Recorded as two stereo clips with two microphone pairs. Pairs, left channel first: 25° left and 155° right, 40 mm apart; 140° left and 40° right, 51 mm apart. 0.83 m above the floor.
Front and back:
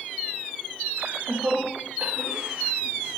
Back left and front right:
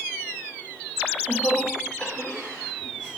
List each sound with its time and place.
1.0 s laughter: 175° left, 3 m; by 3.1 s 125° right, 4 m